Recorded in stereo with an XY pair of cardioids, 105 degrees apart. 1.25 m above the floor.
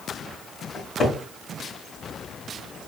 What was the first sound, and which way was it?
A cupboard door, 50° left.